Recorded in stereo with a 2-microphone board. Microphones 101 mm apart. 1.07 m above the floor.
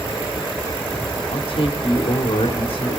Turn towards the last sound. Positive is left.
turn(degrees=75)  # may be behind; listen again after turning